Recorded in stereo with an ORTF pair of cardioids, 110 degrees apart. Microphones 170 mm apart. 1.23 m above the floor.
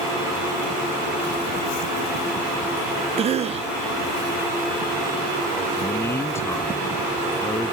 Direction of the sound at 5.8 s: 15° left.